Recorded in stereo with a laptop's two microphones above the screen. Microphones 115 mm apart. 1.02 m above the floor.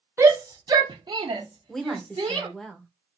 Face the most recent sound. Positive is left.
turn(degrees=5)  # may be behind; listen again after turning